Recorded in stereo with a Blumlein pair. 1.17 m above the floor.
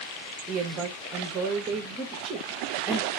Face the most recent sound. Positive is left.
turn(degrees=-25)